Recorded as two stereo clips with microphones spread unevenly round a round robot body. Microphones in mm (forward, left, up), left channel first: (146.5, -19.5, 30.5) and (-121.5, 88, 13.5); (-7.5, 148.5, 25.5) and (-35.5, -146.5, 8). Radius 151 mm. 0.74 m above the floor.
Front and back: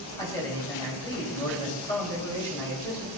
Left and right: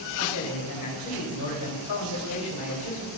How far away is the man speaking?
About 4 m.